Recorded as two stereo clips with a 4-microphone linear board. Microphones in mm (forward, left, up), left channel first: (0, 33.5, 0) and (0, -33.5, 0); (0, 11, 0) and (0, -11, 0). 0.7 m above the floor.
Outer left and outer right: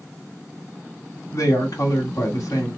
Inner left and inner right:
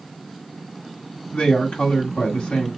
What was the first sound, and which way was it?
A woman speaking, 55° left (ahead or behind).